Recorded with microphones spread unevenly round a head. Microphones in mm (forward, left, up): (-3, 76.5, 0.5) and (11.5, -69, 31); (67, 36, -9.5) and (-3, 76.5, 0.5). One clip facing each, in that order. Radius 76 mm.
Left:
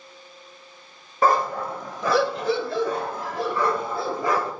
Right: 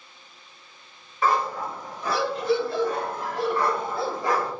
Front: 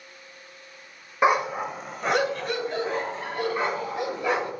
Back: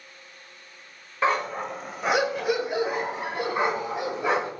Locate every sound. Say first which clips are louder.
1.2 s a dog barking: left 3 dB, front 3 dB; 45° left, 0.8 m; by 4.5 s 85° left, 2.5 m